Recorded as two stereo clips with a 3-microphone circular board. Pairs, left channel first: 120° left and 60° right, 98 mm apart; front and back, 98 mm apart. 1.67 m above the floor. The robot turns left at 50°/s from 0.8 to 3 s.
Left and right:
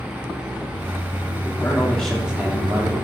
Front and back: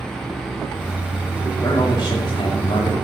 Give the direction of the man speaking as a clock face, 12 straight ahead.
10 o'clock.